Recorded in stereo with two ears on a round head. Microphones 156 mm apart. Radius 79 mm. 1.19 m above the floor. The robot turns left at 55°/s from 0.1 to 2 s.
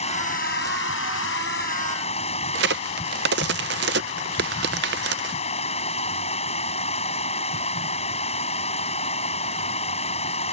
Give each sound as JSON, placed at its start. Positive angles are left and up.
{"t": 0.0, "sound": "running water", "azimuth_deg": 140}
{"t": 2.5, "sound": "a crack", "side_deg": -65}